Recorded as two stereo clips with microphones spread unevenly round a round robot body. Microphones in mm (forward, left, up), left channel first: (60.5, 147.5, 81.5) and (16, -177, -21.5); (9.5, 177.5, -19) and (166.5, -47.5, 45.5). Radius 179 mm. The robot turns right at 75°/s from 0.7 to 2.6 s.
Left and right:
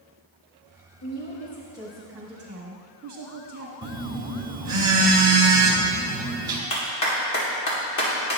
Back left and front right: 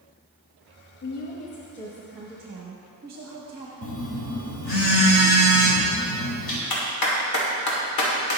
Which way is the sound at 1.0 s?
120° left.